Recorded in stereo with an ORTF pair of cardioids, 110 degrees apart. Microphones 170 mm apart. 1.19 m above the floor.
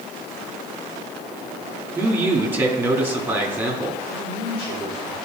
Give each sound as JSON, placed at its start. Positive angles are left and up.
{"t": 1.9, "sound": "a man speaking", "azimuth_deg": -10, "distance_m": 2.0}
{"t": 4.1, "sound": "a man speaking", "azimuth_deg": 35, "distance_m": 2.5}